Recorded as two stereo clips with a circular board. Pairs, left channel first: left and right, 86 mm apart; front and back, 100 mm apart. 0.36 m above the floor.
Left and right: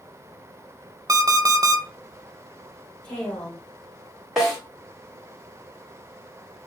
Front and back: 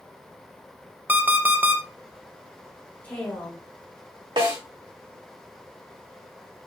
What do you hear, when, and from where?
1.1 s an alarm clock: 115° right, 0.7 m
3.0 s a woman speaking: 30° left, 1.4 m
4.4 s a snare drum: 175° right, 2.5 m